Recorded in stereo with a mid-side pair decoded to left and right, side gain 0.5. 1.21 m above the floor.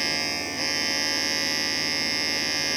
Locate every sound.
0.0 s a machine running: 20° right